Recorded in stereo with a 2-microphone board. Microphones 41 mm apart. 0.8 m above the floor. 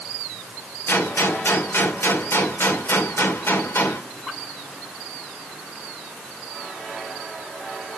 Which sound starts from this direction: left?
A gunshot, at 0.9 s.